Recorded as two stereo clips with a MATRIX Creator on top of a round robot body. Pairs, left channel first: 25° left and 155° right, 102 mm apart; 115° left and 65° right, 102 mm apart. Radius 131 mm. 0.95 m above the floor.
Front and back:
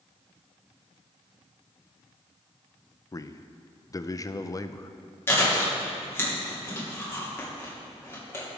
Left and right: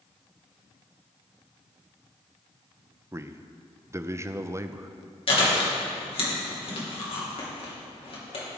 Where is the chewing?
90° left, 3 m.